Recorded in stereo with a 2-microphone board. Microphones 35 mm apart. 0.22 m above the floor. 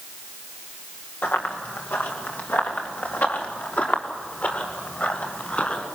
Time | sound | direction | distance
1.2 | running footsteps | 80° left | 5 m